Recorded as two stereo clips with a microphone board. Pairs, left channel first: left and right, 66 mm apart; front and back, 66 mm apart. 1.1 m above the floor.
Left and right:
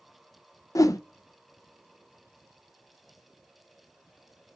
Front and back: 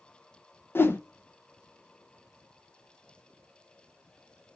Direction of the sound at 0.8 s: 55° left.